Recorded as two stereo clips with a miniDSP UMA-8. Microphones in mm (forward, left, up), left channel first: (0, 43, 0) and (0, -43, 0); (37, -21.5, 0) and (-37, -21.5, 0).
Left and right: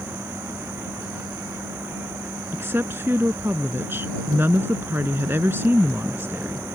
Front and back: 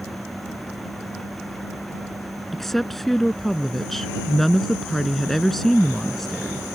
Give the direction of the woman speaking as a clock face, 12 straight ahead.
3 o'clock.